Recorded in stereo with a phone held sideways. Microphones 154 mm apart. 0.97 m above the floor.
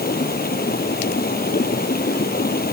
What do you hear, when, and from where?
0.0 s running water: 85° left